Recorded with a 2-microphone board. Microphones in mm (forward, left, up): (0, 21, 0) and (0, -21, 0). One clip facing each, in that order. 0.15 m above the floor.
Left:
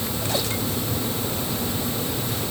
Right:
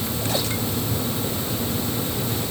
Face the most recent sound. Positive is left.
No sound to turn to.